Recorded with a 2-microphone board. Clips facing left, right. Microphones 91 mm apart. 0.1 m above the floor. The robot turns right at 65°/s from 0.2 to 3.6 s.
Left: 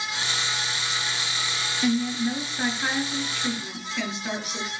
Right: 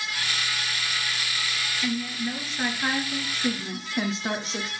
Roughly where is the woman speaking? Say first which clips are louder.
Left 6 dB; behind left.